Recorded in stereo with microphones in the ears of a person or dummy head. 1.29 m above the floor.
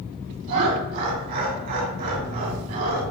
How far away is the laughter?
About 1.8 m.